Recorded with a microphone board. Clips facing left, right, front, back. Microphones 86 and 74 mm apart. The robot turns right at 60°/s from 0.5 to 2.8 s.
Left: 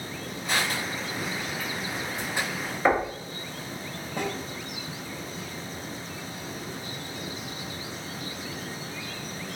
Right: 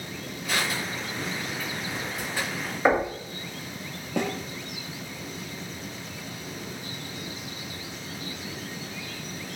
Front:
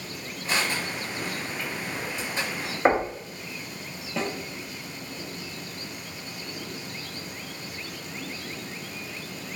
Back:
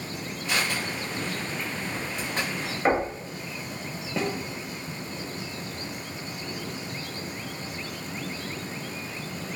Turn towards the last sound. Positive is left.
turn(degrees=-100)